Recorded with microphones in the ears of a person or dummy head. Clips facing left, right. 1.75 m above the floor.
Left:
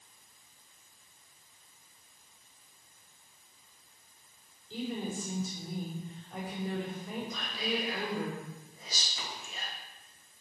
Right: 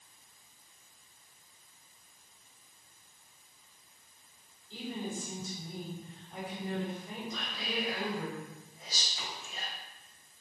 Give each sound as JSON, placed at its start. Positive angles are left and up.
{"t": 4.7, "sound": "a woman speaking", "side_deg": 55, "distance_m": 4.5}
{"t": 7.3, "sound": "whispering", "side_deg": 70, "distance_m": 2.5}